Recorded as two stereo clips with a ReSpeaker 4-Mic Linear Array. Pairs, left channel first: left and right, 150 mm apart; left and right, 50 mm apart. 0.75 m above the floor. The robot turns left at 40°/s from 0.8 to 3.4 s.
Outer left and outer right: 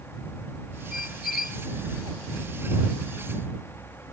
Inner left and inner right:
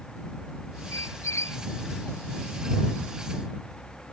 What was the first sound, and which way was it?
A squeak, 80° left.